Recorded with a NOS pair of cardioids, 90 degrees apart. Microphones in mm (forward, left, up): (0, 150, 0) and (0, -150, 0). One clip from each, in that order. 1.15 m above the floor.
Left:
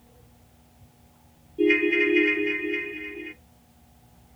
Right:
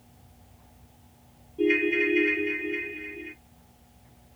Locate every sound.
1.6 s a ringtone: 20° left, 0.5 m